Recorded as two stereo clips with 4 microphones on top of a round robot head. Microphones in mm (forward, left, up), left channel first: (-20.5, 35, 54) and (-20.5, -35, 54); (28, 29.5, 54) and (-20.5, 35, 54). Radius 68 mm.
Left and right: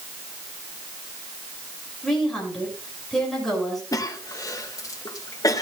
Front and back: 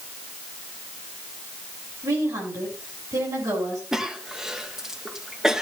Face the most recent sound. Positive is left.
turn(degrees=95)